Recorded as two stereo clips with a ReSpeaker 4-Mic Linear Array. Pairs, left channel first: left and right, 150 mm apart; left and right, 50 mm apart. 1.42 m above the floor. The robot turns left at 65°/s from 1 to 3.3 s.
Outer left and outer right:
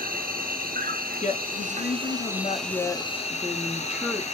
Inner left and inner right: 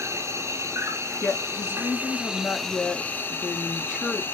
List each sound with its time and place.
0.0 s an insect: 80° right, 1.0 m; by 4.3 s 130° left, 1.0 m
1.2 s a woman speaking: 125° left, 0.8 m; by 4.2 s 10° right, 0.8 m